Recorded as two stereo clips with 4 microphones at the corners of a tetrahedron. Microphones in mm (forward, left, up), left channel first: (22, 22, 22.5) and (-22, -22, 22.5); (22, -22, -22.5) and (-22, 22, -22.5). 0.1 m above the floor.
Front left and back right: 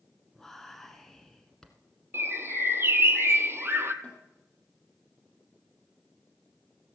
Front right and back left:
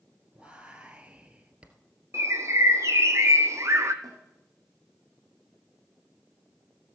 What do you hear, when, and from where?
0.3 s whispering: 120° left, 1.1 m
2.1 s a bird: 175° left, 0.8 m
4.0 s a snare drum: 110° left, 3.5 m